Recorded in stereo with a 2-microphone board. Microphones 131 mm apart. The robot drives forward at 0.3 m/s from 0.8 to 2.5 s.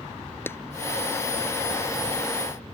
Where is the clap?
20° left (ahead or behind).